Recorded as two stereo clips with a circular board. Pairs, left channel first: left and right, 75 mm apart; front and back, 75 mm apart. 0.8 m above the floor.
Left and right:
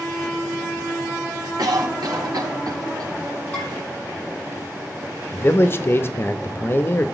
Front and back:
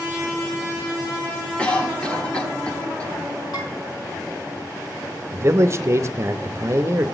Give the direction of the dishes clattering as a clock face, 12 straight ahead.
11 o'clock.